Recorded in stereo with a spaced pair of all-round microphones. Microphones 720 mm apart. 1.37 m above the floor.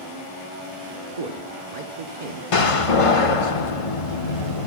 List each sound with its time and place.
1.2 s a man speaking: 80° right, 0.8 m
2.5 s a door slam: 50° left (ahead or behind), 0.8 m